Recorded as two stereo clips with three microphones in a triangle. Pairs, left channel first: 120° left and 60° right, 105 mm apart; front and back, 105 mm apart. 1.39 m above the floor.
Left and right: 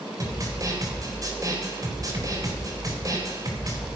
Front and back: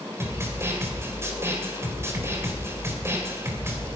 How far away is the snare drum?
About 3.5 m.